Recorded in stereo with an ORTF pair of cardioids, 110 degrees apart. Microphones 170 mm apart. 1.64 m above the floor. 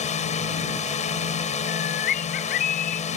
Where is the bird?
60° left.